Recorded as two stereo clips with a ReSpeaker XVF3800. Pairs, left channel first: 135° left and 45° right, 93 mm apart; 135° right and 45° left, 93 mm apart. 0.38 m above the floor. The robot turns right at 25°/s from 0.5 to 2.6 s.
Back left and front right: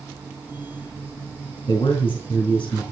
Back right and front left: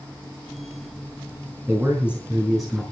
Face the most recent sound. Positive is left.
turn(degrees=135)